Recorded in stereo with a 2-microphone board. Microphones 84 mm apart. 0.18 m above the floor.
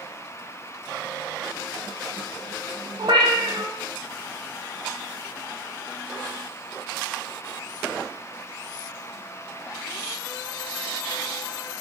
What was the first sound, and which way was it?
A cat meowing, 70° right (ahead or behind).